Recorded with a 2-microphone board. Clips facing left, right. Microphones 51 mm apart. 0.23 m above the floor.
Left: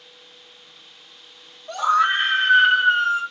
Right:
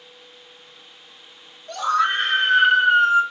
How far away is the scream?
About 1.5 m.